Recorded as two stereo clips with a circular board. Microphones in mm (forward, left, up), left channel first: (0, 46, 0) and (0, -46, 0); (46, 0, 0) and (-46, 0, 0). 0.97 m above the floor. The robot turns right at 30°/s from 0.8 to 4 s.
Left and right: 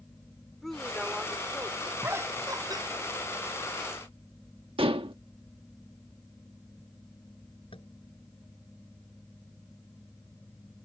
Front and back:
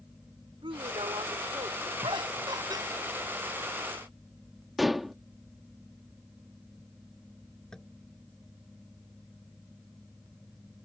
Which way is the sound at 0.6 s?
175° left.